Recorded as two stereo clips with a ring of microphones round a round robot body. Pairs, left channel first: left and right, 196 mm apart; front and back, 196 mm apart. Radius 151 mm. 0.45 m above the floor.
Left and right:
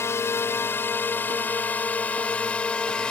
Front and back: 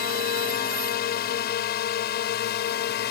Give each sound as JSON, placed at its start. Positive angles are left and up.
{"t": 0.0, "sound": "a drone", "azimuth_deg": 15}